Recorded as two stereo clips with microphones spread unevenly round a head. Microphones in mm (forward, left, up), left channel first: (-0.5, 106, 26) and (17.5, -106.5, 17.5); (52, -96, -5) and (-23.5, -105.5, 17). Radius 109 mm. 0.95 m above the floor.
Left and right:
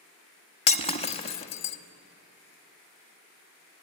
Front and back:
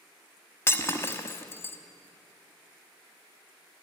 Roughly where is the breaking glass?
Left.